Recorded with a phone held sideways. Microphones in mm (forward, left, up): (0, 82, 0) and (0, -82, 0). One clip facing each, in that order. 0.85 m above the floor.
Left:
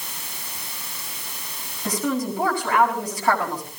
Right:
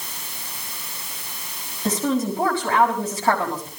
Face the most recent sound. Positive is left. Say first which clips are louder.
# right 3 dB
turn(degrees=-25)  # may be behind; listen again after turning